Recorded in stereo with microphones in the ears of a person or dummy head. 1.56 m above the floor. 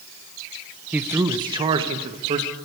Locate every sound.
0.9 s a man speaking: 5° right (ahead or behind), 0.8 m; by 2.5 s 35° right (ahead or behind), 1.8 m